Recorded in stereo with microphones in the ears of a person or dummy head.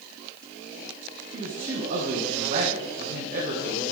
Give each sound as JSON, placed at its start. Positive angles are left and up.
{"t": 1.3, "sound": "a man speaking", "side_deg": -45, "distance_m": 1.4}